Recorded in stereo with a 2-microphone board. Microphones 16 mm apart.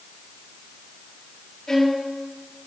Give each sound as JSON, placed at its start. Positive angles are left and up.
{"t": 1.7, "sound": "a violin", "side_deg": 25, "distance_m": 7.5}